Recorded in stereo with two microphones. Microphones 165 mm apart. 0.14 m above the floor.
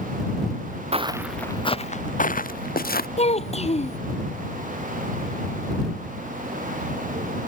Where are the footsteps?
40° right (ahead or behind); by 3.1 s 70° left (ahead or behind).